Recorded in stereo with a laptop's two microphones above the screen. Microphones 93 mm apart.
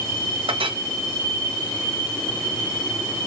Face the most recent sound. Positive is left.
turn(degrees=-70)  # may be behind; listen again after turning